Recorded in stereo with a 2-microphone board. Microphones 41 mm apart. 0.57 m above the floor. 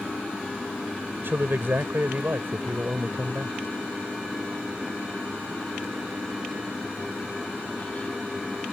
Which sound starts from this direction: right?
A man speaking, at 1.2 s.